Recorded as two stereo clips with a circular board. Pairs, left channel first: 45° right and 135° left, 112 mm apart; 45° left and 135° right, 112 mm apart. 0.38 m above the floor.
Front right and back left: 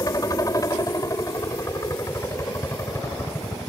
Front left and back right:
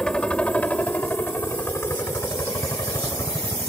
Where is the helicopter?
30° right; by 3.7 s 10° left.